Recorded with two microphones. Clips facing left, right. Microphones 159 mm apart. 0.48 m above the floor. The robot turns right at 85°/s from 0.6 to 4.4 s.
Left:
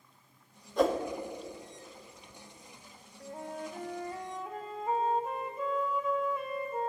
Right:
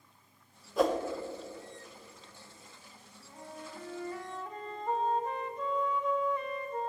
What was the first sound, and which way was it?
A whoosh, 5° right (ahead or behind).